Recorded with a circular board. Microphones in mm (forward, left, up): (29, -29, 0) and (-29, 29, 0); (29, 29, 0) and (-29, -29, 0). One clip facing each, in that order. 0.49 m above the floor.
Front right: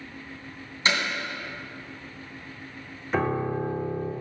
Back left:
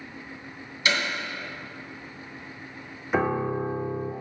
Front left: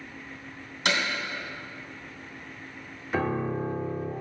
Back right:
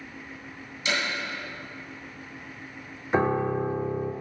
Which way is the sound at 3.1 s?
155° right.